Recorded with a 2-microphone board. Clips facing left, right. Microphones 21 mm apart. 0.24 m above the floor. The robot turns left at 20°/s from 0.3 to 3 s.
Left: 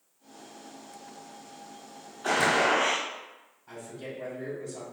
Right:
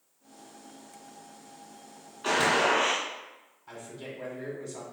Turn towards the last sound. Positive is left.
turn(degrees=-20)  # may be behind; listen again after turning